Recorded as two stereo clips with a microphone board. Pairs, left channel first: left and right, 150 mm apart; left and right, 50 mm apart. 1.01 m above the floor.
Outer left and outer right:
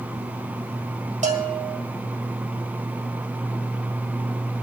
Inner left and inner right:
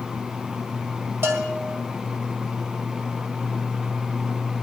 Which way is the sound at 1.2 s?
55° right (ahead or behind).